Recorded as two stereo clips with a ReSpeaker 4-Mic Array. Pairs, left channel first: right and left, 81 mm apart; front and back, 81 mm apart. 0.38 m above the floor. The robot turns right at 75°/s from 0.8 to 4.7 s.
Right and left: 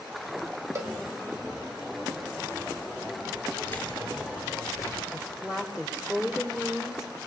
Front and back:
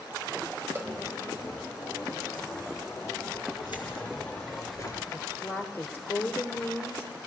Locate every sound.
0.8 s a cowbell: 130° left, 1.7 m; by 0.9 s 140° left, 1.7 m
3.7 s keys jangling: 30° right, 4 m; by 5.0 s 50° left, 4 m
5.1 s a woman speaking: 30° left, 1.5 m